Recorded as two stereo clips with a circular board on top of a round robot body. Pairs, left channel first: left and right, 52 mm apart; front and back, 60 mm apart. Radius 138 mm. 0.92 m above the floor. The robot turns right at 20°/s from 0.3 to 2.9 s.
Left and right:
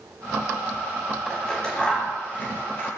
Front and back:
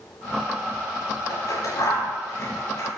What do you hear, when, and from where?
1.3 s scissors: 10° left, 9.5 m; by 2.9 s 45° left, 9.5 m